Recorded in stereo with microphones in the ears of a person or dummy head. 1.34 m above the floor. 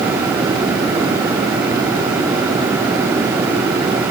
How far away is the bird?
I don't hear a bird.